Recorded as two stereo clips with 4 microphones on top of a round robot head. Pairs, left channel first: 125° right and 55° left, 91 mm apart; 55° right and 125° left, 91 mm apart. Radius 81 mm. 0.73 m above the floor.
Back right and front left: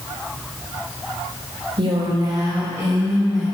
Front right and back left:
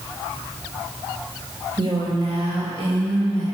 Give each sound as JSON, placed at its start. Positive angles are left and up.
{"t": 1.8, "sound": "a woman speaking", "azimuth_deg": 85, "distance_m": 2.0}